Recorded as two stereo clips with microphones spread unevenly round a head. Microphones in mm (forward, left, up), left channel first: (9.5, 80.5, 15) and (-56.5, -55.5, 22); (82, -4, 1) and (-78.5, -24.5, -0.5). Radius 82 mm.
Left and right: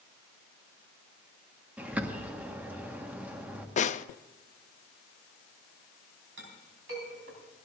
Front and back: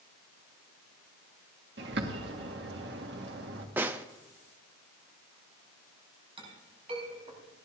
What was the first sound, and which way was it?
A bird, 165° left.